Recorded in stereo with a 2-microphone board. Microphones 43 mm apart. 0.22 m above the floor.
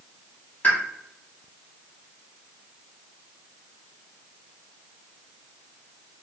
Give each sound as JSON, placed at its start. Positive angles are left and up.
{"t": 0.6, "sound": "a pop", "side_deg": 30, "distance_m": 1.5}